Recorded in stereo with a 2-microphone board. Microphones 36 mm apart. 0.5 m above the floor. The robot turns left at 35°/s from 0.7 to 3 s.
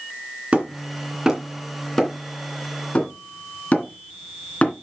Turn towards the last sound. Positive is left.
turn(degrees=50)  # may be behind; listen again after turning